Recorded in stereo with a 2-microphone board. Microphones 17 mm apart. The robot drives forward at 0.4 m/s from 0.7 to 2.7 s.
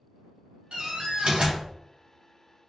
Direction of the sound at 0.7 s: 80° right.